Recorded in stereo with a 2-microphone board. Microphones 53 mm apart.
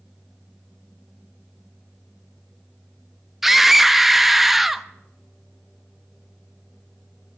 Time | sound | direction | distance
3.4 | a scream | 5° right (ahead or behind) | 0.5 m